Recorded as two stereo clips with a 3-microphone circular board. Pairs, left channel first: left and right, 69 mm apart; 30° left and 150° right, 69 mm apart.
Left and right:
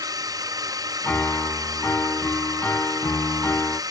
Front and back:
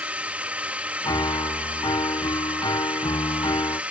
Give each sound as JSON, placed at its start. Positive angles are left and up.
{"t": 0.0, "sound": "a drone", "azimuth_deg": -80}
{"t": 1.0, "sound": "a piano", "azimuth_deg": 25}